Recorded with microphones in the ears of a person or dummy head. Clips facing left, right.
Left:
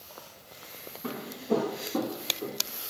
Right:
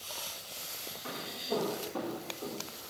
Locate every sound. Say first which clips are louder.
1.0 s footsteps: left 8 dB; 65° left (ahead or behind), 3 m; by 2.6 s 40° left (ahead or behind), 2 m